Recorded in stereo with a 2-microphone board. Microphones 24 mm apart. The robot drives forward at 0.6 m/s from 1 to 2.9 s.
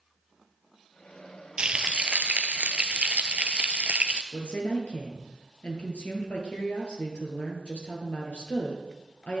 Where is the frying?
45° right (ahead or behind), 0.7 m; by 4.2 s 55° right (ahead or behind), 0.6 m.